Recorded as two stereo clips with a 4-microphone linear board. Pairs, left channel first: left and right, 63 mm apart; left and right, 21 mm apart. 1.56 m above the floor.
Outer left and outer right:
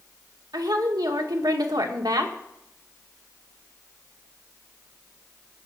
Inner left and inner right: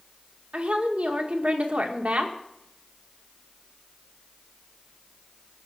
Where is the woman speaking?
75° right (ahead or behind), 1.9 m.